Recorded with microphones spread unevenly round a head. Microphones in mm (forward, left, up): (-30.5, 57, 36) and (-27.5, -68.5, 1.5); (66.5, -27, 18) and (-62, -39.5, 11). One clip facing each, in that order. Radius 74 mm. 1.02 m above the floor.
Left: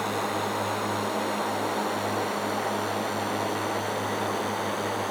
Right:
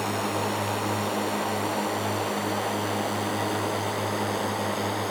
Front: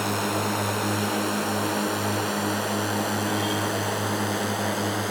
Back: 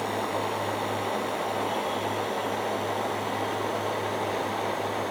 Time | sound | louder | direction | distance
0.0 | a drone | right 1 dB, front 2 dB | 5° right | ?